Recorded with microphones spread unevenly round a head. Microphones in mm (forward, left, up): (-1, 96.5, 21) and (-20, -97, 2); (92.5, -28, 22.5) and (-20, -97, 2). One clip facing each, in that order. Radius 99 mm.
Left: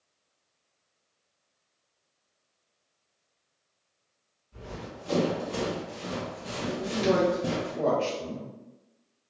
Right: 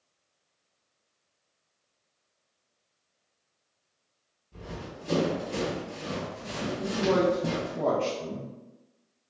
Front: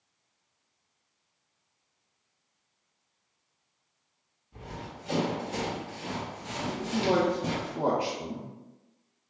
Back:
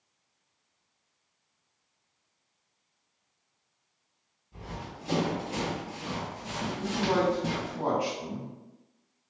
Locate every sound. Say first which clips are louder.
4.5 s running footsteps: even, even; 115° right, 1.7 m; by 7.8 s 15° left, 1.5 m
6.8 s a man speaking: even, front 2 dB; 10° right, 0.7 m